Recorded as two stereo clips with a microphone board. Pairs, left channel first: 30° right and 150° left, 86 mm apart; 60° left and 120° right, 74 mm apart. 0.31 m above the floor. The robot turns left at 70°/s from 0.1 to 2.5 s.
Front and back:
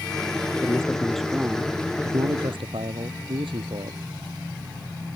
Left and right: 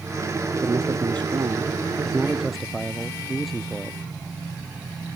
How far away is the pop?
No pop in this recording.